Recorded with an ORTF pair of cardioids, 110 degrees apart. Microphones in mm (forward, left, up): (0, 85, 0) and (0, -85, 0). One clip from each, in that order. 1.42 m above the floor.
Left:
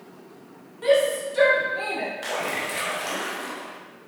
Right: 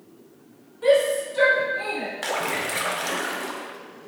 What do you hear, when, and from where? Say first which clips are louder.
0.8 s a shout: right 1 dB; 20° left, 1.8 m; by 2.1 s 40° left, 1.3 m
2.2 s a splash: right 5 dB; 25° right, 0.7 m